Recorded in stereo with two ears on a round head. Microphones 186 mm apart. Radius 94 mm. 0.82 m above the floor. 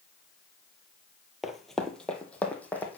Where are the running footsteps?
Centre (ahead or behind), 0.9 m; by 3.0 s 10° left (ahead or behind), 1.7 m.